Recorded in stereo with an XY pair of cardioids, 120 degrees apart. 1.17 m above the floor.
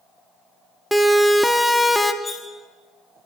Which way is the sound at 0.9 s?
Straight ahead.